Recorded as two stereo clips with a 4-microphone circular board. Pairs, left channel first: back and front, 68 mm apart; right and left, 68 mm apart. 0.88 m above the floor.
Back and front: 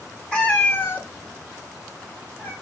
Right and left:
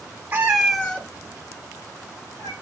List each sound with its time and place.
0.3 s a cat meowing: 120° left, 0.8 m; by 2.5 s 120° right, 2.5 m